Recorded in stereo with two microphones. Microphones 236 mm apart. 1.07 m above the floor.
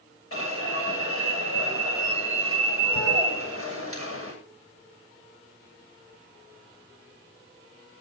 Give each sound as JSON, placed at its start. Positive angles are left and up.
{"t": 0.3, "sound": "an alarm", "side_deg": 65, "distance_m": 8.5}